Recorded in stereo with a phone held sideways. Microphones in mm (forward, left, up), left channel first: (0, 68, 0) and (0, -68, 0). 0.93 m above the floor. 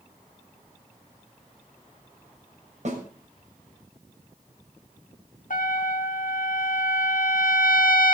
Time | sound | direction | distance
2.9 | a snare drum | 55° right (ahead or behind) | 6 m
5.5 | a trumpet | 70° left (ahead or behind) | 1.4 m